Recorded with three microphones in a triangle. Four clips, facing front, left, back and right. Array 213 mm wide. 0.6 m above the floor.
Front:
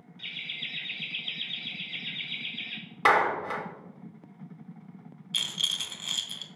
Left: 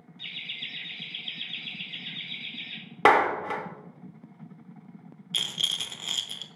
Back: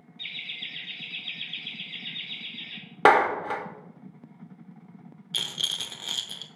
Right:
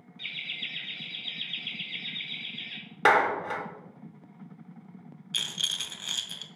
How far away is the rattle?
About 0.8 m.